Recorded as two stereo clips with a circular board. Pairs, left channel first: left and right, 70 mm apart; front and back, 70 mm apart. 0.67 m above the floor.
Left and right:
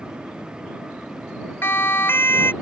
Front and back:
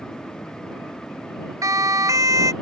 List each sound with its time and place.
1.6 s a siren: 145° left